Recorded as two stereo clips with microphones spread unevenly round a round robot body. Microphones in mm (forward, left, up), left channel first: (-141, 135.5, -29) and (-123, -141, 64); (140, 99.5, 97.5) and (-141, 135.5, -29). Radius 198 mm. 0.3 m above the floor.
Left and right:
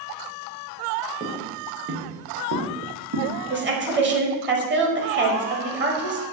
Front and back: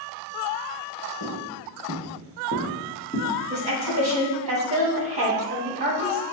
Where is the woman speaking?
145° right, 1.6 m.